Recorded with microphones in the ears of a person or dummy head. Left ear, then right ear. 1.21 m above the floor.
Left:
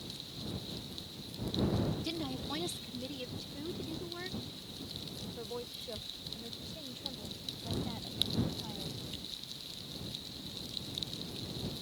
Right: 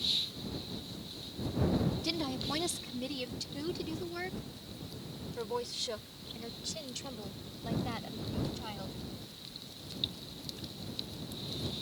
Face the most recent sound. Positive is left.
turn(degrees=-70)  # may be behind; listen again after turning